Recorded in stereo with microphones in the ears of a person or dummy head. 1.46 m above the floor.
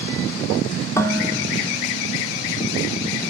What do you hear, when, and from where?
1.0 s dishes clattering: 20° left (ahead or behind), 2.5 m